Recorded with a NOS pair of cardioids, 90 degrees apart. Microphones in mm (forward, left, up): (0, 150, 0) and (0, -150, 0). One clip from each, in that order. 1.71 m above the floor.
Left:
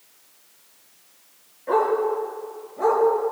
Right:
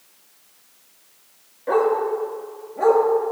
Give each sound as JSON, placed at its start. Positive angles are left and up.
{"t": 1.7, "sound": "a dog barking", "azimuth_deg": -35, "distance_m": 7.0}